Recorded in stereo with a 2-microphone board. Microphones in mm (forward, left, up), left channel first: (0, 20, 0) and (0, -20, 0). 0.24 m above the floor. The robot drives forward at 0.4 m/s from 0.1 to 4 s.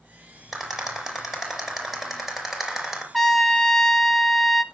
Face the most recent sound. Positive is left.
turn(degrees=5)  # may be behind; listen again after turning